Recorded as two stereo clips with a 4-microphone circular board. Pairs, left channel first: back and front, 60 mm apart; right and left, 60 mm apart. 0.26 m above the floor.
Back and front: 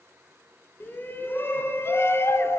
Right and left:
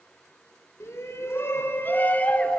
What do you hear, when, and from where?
0.8 s a shout: 125° right, 3 m; by 2.6 s 155° right, 1.6 m